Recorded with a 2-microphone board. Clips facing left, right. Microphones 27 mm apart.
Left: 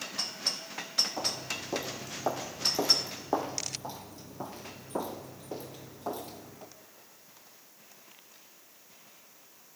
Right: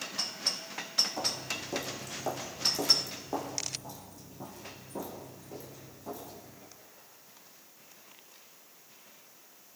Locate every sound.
1.2 s footsteps: 10° left (ahead or behind), 2 m; by 6.7 s 60° left (ahead or behind), 3.5 m